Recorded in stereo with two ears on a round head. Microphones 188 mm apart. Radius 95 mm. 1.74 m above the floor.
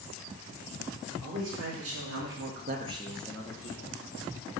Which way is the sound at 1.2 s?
80° right.